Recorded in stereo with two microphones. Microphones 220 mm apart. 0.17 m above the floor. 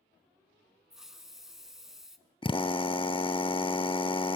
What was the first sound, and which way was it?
A hiss, centre (ahead or behind).